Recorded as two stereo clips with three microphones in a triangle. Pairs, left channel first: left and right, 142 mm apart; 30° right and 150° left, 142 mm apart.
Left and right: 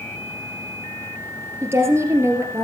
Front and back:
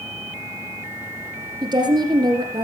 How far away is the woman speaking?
About 2.5 m.